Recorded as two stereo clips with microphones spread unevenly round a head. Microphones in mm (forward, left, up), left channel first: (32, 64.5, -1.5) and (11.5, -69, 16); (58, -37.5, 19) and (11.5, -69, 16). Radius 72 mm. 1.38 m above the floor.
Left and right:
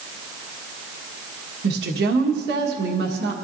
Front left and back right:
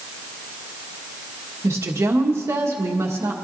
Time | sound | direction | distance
1.6 | a woman speaking | 115° right | 1.6 m